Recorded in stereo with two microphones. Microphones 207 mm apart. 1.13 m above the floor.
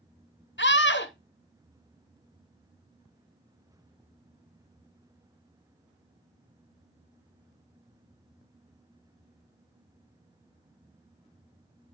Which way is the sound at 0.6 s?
55° left (ahead or behind).